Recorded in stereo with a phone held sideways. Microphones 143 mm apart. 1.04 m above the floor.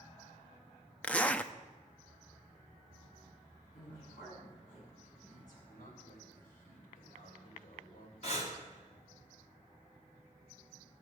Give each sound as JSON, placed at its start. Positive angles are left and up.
{"t": 1.0, "sound": "a zipper", "side_deg": 10, "distance_m": 0.5}
{"t": 3.7, "sound": "a woman speaking", "side_deg": 65, "distance_m": 7.5}
{"t": 5.7, "sound": "a man speaking", "side_deg": 80, "distance_m": 4.0}
{"t": 8.2, "sound": "breathing", "side_deg": 50, "distance_m": 2.0}